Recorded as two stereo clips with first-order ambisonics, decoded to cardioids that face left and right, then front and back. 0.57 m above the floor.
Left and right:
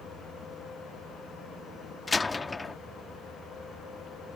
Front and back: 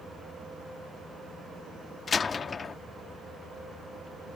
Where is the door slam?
35° left.